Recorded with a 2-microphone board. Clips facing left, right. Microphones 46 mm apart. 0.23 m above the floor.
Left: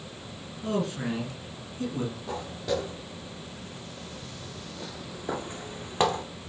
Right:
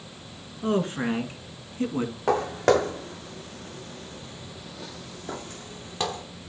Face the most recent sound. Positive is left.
turn(degrees=30)  # may be behind; listen again after turning